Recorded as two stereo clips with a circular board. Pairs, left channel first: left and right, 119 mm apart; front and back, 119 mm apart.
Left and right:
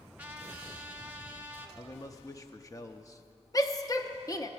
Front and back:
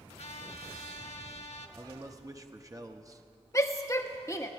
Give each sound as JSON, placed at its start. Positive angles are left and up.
{"t": 0.2, "sound": "a trumpet", "azimuth_deg": -15, "distance_m": 0.8}
{"t": 1.8, "sound": "a man speaking", "azimuth_deg": 135, "distance_m": 0.7}
{"t": 3.5, "sound": "a shout", "azimuth_deg": 50, "distance_m": 0.7}